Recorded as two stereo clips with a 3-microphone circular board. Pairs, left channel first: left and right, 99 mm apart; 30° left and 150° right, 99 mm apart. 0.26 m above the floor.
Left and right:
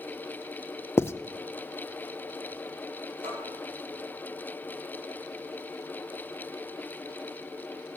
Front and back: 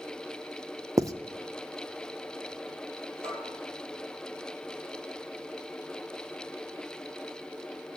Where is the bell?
85° right, 8 m.